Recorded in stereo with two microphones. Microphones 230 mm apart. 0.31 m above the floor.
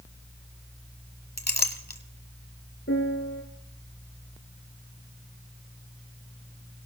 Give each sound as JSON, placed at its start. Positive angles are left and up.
{"t": 1.4, "sound": "a clink", "side_deg": 45, "distance_m": 1.3}
{"t": 2.9, "sound": "a piano", "side_deg": 60, "distance_m": 2.5}